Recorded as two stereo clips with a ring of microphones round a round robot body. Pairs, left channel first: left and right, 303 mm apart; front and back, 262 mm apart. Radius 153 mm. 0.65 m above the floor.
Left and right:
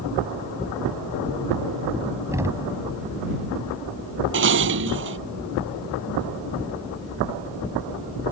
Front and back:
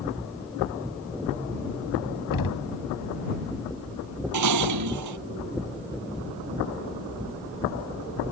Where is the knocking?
10° right.